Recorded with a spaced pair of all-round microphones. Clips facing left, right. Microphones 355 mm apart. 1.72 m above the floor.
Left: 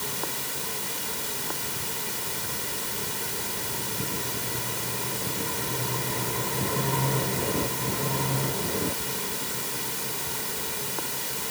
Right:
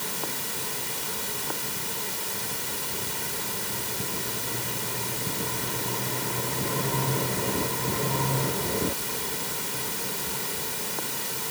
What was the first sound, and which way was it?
Only background noise.